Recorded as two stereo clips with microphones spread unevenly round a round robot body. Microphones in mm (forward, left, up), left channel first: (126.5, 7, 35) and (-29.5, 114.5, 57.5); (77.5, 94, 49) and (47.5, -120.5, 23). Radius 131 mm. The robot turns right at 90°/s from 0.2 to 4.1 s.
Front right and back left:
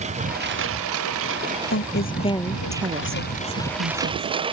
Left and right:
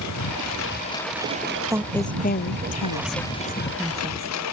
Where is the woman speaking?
25° right; by 4.3 s 165° right.